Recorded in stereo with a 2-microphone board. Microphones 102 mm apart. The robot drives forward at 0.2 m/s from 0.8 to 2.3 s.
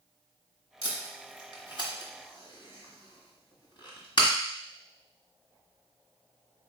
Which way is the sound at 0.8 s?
60° left (ahead or behind).